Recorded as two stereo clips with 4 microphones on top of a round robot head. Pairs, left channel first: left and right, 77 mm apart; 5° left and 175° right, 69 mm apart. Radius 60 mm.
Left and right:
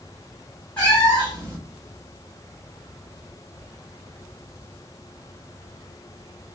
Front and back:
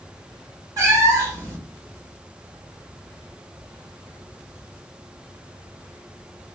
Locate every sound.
0.8 s a cat meowing: 165° left, 1.7 m